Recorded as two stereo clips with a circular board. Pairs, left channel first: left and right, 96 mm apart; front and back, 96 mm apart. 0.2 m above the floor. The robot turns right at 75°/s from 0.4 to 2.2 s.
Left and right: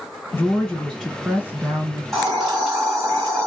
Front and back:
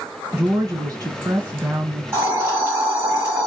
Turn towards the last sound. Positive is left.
turn(degrees=-170)